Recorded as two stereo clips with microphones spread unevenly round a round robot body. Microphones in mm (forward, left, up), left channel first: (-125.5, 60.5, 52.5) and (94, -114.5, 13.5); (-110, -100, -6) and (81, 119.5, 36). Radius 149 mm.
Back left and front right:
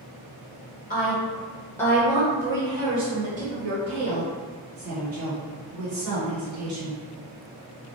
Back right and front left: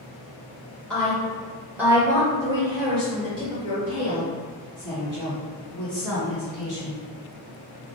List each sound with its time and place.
0.9 s a woman speaking: 170° left, 1.3 m; by 7.0 s 20° right, 3 m